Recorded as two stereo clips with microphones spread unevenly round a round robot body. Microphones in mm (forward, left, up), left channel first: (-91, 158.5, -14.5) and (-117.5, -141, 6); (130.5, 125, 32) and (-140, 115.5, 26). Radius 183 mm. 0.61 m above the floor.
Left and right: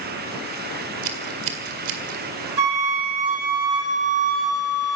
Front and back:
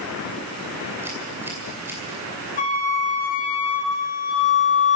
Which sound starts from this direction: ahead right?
A flute, at 2.6 s.